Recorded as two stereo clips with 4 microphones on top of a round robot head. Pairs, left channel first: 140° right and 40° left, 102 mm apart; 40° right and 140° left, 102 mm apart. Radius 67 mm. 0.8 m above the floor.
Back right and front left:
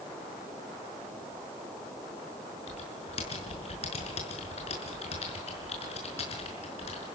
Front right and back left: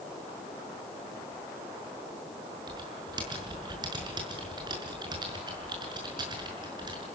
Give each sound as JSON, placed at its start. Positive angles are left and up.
{"t": 2.7, "sound": "typing on a keyboard", "azimuth_deg": -170, "distance_m": 5.5}